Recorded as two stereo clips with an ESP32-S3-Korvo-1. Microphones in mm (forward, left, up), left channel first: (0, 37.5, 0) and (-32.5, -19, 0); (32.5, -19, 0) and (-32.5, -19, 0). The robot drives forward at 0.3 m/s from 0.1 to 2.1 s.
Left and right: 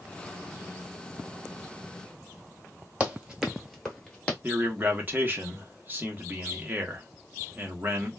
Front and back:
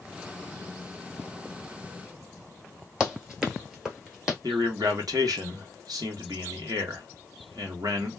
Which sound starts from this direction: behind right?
Running footsteps, at 3.0 s.